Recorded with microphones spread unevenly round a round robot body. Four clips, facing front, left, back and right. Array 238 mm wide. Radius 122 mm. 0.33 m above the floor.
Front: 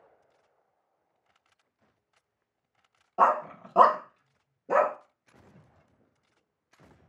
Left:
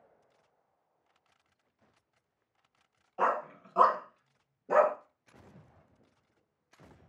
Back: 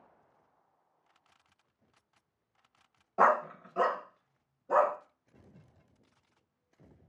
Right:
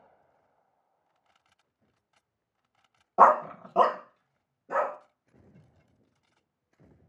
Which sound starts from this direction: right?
A dog barking, at 3.2 s.